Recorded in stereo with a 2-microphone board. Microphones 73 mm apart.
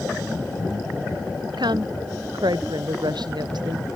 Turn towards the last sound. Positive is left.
turn(degrees=-85)